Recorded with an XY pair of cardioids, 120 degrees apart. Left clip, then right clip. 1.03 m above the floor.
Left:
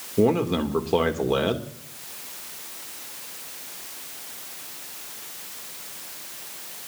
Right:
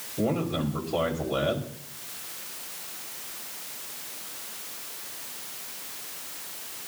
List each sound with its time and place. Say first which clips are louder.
0.2 s a man speaking: left 7 dB; 60° left, 2.5 m